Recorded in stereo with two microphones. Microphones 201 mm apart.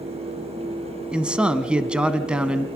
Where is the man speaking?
5° right (ahead or behind), 1.2 m.